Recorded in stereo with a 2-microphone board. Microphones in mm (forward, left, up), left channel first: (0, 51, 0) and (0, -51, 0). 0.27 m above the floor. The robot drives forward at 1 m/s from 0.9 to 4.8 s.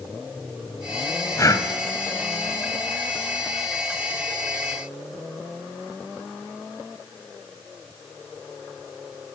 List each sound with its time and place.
1.4 s breathing: 35° left (ahead or behind), 1.1 m